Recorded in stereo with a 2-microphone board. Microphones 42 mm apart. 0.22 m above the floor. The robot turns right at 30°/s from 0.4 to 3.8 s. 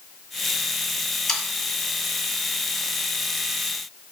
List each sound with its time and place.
1.3 s sawing: 5° left (ahead or behind), 2.0 m; by 1.4 s 10° left (ahead or behind), 2.0 m